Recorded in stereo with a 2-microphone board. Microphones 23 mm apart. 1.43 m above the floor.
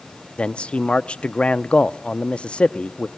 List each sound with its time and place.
0.4 s a man speaking: 55° left (ahead or behind), 0.6 m